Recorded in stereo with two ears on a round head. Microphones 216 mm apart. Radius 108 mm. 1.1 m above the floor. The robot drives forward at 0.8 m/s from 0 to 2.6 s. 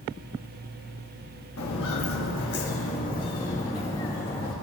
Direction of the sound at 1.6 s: 60° left (ahead or behind).